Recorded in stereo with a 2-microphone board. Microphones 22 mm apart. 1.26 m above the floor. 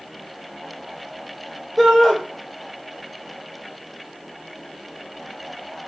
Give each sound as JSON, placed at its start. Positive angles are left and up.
{"t": 1.8, "sound": "a shout", "side_deg": -5, "distance_m": 4.5}